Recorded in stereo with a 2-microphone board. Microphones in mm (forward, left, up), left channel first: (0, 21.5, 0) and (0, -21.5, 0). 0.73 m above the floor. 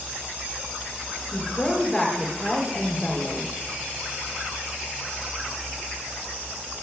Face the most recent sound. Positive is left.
turn(degrees=10)  # may be behind; listen again after turning